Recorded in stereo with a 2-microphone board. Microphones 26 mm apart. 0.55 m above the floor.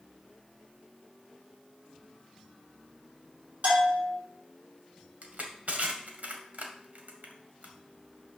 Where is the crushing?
75° right (ahead or behind), 1.8 m.